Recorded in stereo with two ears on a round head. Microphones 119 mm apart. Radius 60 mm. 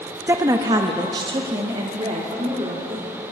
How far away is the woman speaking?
About 0.6 m.